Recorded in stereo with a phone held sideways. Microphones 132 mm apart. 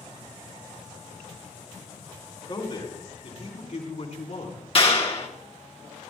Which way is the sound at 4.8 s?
45° left (ahead or behind).